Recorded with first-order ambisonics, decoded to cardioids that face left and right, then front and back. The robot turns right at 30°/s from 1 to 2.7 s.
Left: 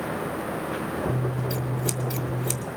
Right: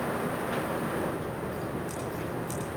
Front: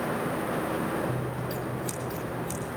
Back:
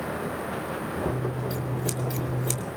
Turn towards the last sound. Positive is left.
turn(degrees=140)